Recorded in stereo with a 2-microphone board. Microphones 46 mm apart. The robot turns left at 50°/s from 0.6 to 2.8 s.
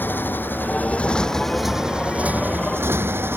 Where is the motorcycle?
45° left; by 3.4 s 65° right.